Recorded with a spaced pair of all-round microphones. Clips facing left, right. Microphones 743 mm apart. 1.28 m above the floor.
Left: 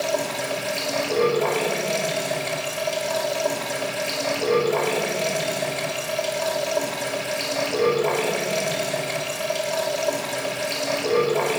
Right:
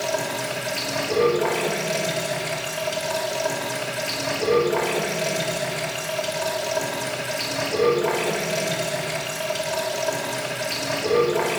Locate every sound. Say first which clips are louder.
0.0 s running water: left 1 dB; 45° right (ahead or behind), 5.5 m